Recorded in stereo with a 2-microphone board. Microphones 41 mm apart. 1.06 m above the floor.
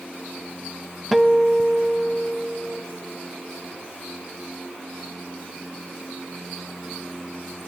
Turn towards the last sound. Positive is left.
turn(degrees=0)  # may be behind; listen again after turning